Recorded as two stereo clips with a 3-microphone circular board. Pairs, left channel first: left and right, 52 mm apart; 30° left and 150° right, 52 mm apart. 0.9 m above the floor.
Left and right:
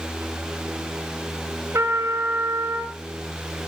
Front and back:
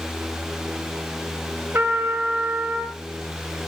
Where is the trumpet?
105° right, 2 m.